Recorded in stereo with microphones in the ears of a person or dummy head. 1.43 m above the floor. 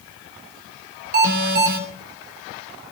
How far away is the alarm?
About 3.5 m.